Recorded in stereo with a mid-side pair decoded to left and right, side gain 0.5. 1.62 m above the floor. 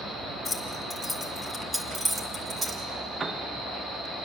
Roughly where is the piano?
Ahead right.